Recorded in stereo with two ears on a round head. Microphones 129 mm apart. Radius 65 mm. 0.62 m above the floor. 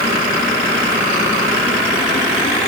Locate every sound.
Only background noise.